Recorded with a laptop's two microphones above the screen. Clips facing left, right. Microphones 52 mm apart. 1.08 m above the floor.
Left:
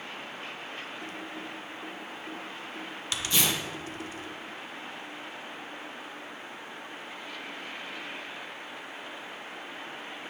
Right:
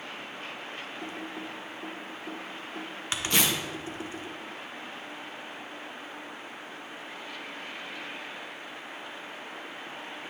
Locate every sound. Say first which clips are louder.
1.0 s typing on a keyboard: right 1 dB; 30° right (ahead or behind), 0.6 m
3.3 s tearing paper: right 2 dB; 60° right (ahead or behind), 0.9 m